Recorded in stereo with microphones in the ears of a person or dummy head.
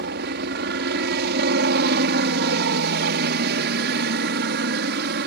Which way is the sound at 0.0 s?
60° right (ahead or behind).